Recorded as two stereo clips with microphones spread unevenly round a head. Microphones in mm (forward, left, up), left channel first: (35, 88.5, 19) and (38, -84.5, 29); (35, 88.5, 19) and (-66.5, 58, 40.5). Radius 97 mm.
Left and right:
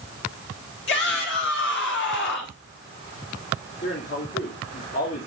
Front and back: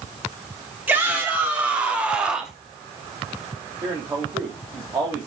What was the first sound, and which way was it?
A shout, 120° left.